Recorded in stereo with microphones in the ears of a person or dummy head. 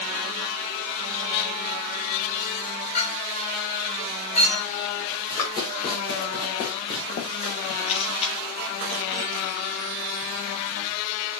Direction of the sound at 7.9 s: 35° left (ahead or behind).